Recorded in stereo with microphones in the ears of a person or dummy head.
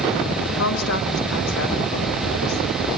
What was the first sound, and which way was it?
A woman speaking, 75° left (ahead or behind).